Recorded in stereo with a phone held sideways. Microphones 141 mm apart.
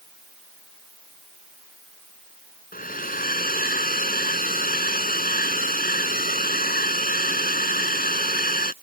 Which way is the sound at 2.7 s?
85° left.